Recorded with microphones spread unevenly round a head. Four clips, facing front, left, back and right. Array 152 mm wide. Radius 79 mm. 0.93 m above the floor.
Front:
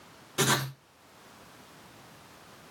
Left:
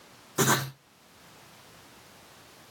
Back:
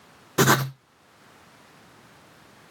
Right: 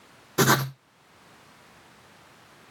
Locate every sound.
0.4 s writing: 135° right, 1.0 m